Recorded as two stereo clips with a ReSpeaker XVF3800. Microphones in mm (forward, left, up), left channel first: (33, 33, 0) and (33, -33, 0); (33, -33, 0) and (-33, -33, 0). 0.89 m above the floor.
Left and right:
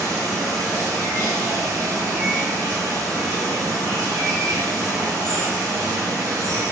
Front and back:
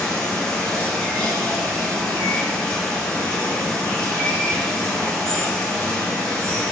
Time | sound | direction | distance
0.0 | running water | 75° right | 1.6 m